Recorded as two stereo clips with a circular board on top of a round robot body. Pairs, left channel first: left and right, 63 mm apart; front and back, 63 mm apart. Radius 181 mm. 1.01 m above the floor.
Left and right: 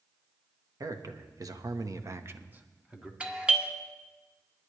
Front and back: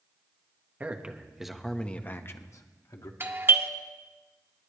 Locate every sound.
0.8 s a man speaking: 115° right, 1.5 m; by 3.1 s 15° right, 1.5 m
3.2 s a doorbell: 150° right, 1.6 m